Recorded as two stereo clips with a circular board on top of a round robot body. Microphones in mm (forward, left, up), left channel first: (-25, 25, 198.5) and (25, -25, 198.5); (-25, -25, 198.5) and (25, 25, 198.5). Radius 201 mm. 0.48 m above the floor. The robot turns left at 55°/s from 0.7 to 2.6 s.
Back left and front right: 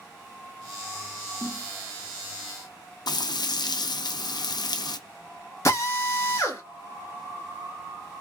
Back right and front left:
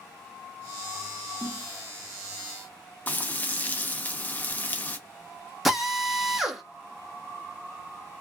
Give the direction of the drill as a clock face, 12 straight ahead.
8 o'clock.